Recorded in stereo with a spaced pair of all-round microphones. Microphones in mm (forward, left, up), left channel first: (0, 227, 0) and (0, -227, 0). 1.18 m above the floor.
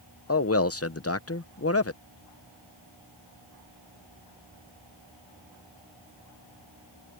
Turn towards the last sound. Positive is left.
turn(degrees=30)  # may be behind; listen again after turning